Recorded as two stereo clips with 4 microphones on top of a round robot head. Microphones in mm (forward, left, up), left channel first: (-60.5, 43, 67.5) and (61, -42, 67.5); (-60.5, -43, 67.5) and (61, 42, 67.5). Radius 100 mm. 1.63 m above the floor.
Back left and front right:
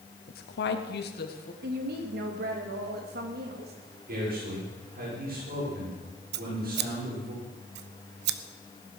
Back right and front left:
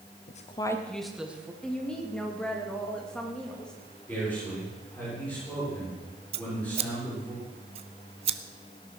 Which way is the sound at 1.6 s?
60° right.